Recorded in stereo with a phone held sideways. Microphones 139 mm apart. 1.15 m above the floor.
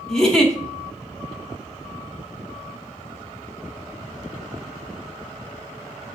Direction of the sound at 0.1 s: 5° left (ahead or behind).